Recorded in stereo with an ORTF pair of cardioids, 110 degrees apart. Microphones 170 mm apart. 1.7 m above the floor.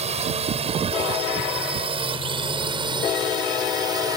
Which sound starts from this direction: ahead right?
A drone, at 0.0 s.